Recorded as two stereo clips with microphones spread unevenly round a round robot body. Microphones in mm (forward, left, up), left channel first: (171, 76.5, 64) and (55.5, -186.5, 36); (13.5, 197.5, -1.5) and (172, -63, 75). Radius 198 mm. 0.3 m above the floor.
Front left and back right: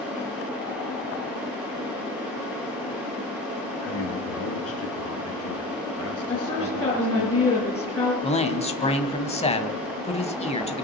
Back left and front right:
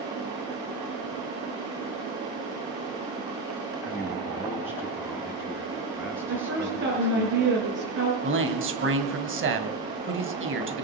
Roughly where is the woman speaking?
Ahead.